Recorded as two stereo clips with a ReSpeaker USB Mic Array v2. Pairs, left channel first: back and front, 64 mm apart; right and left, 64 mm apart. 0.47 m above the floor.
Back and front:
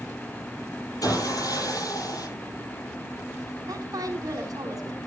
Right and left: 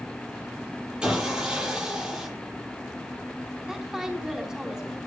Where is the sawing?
165° left, 10 m.